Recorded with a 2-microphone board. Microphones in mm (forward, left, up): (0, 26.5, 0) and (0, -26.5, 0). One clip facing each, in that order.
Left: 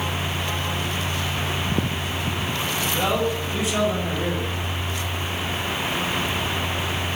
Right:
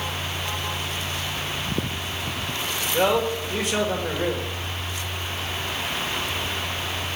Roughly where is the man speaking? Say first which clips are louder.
Right 3 dB; right.